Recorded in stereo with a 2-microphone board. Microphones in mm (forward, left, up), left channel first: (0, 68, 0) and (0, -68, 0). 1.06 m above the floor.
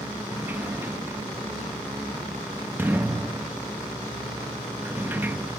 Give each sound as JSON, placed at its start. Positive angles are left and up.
{"t": 0.3, "sound": "a sliding door", "side_deg": -15, "distance_m": 0.9}